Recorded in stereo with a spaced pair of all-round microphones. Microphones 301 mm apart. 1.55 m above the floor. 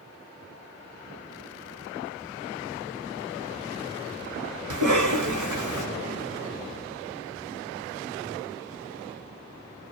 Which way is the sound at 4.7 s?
75° right (ahead or behind).